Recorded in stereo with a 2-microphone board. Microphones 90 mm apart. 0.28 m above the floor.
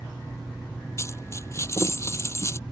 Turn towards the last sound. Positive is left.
turn(degrees=30)  # may be behind; listen again after turning